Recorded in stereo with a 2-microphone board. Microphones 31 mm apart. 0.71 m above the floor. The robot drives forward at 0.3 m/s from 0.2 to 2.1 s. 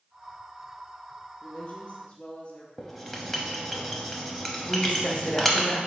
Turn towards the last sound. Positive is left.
turn(degrees=45)  # may be behind; listen again after turning